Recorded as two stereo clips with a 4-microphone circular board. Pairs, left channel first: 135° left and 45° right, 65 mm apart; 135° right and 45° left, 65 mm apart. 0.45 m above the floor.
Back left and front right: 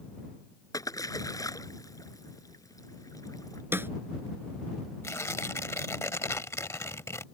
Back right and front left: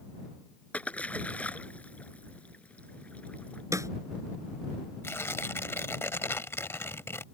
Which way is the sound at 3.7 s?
10° left.